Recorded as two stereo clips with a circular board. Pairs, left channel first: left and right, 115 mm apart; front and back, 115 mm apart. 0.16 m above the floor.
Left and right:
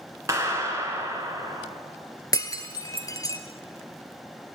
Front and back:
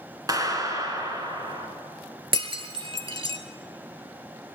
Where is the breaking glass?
145° left, 0.9 m.